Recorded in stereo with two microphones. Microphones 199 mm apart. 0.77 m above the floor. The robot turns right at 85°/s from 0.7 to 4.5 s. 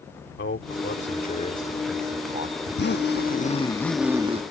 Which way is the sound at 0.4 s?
80° left.